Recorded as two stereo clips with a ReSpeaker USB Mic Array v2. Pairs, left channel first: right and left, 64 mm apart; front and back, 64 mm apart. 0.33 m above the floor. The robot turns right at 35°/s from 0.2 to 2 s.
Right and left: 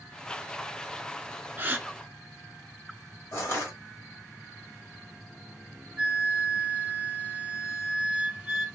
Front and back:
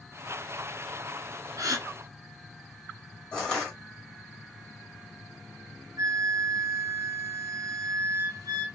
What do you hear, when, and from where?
1.6 s a gasp: 150° left, 0.8 m; by 1.9 s 160° left, 0.8 m
3.3 s crushing: 70° right, 1.7 m
6.0 s a flute: 165° left, 0.7 m